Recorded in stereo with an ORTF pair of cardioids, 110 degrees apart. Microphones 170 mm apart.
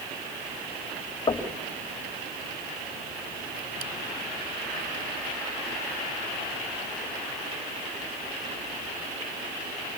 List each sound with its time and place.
1.3 s knocking: 25° left, 3.5 m